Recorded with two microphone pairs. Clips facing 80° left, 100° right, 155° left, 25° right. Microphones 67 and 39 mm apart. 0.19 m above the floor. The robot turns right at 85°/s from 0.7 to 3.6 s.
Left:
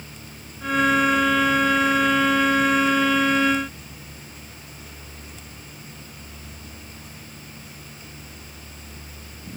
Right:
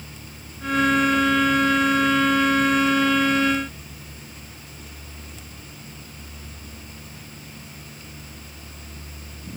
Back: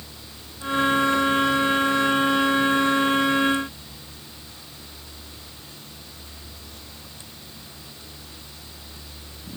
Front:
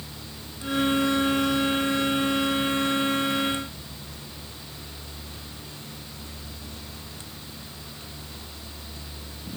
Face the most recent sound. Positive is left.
No sound to turn to.